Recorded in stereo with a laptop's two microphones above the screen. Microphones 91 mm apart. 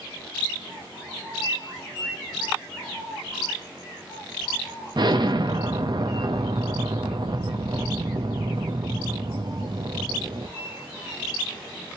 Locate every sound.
5.0 s an explosion: 55° right (ahead or behind), 0.6 m